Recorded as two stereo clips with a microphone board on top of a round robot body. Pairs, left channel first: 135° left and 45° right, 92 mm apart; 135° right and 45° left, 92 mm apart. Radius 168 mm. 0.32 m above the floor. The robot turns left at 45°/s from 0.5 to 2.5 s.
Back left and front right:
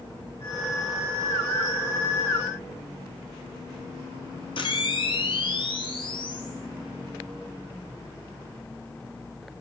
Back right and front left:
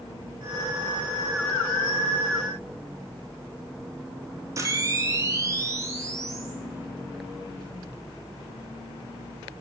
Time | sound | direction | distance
4.6 | a camera shutter | 105° left | 2 m